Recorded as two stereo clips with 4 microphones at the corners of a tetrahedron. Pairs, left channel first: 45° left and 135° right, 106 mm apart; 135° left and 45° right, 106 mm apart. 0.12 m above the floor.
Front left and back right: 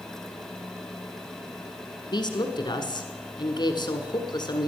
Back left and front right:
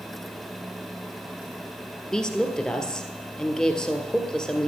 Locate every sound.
2.1 s a woman speaking: 55° left, 1.5 m